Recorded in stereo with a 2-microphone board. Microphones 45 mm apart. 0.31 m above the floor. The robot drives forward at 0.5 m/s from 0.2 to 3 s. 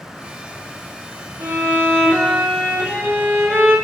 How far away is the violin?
About 4 m.